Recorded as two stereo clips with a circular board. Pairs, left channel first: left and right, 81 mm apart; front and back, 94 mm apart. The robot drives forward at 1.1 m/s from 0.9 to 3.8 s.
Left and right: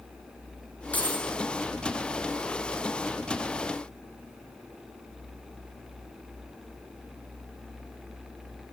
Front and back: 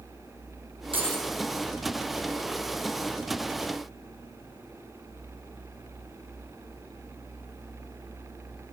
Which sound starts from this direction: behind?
Keys jangling, at 0.9 s.